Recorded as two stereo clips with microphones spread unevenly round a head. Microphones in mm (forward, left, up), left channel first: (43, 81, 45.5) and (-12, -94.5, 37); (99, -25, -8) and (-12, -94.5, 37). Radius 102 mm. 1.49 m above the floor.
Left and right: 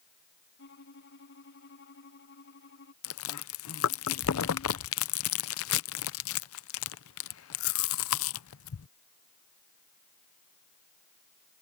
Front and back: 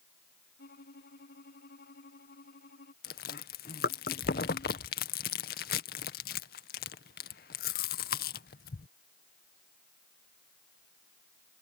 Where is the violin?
45° left.